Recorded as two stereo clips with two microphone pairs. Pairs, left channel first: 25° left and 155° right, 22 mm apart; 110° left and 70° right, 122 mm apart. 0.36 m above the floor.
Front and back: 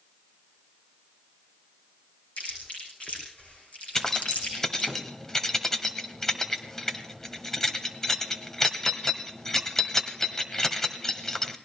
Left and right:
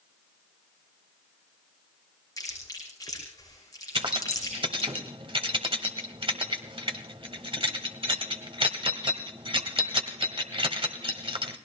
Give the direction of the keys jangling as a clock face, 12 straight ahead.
1 o'clock.